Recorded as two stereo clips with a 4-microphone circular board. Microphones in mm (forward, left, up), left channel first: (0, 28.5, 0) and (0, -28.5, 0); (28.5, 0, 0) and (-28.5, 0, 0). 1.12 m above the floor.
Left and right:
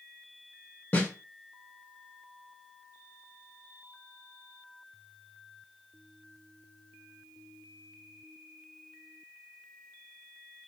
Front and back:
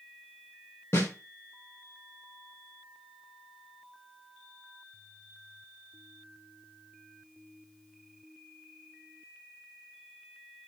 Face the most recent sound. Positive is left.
turn(degrees=40)